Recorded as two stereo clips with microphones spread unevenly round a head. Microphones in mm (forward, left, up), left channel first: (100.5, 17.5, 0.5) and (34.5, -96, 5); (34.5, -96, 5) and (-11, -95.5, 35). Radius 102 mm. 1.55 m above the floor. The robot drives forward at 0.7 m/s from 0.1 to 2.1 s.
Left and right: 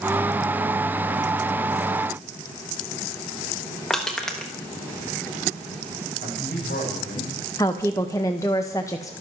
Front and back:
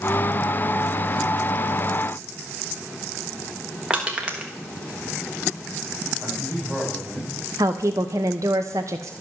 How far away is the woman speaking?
About 0.8 m.